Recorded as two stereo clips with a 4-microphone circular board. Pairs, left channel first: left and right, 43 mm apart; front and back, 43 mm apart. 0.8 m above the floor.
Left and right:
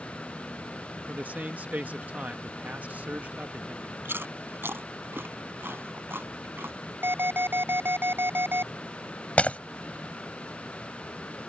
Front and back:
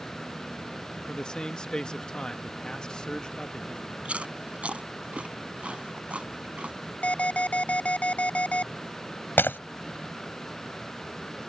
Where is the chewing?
120° right.